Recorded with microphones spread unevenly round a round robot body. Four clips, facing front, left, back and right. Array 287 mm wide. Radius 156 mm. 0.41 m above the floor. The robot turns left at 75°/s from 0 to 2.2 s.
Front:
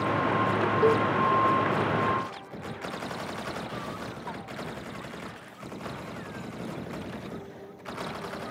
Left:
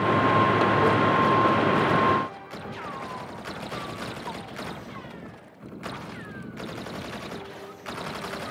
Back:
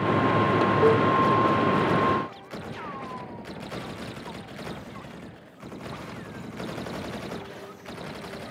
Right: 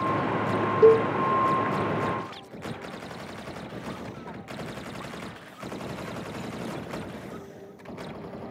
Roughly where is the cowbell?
Right.